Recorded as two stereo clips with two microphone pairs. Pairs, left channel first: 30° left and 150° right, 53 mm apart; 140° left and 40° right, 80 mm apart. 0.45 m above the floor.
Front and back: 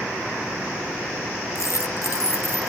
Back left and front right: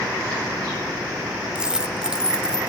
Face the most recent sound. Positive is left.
turn(degrees=45)